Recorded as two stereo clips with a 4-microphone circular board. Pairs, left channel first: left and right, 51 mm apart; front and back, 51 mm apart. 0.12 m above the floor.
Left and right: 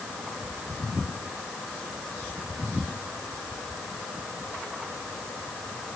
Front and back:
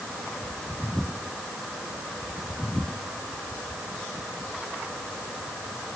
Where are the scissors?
I don't hear scissors.